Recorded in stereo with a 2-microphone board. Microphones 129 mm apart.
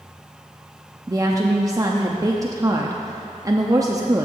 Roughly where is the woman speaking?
Right.